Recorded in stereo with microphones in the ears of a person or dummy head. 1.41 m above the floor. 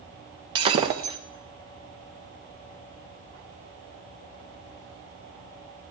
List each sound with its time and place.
0.6 s breaking glass: 20° right (ahead or behind), 0.7 m